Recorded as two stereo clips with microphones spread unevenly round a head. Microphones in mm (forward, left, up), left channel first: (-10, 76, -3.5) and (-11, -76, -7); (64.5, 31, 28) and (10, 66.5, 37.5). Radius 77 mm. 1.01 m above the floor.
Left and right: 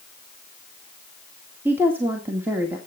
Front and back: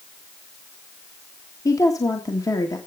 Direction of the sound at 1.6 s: 15° right.